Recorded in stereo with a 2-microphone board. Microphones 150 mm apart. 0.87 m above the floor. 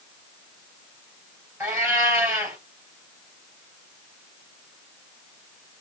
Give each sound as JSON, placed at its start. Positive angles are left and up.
{"t": 1.6, "sound": "a cat meowing", "side_deg": -15, "distance_m": 2.0}